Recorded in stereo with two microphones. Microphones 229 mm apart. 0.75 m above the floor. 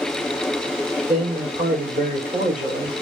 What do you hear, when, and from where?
1.1 s a man speaking: 35° right (ahead or behind), 3 m